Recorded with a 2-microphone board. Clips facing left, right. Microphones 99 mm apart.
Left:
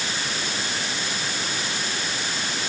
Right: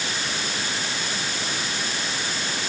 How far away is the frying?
I don't hear frying.